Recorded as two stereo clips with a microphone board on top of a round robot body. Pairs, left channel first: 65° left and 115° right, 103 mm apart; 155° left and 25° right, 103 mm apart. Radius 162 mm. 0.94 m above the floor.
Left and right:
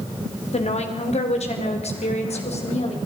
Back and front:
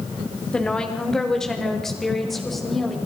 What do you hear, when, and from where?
0.5 s a woman speaking: 75° left, 3 m; by 3.0 s 70° left, 5 m